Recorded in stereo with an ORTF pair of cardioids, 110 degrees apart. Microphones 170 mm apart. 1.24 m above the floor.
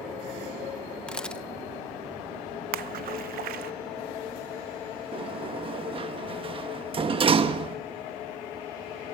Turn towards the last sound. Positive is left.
turn(degrees=-30)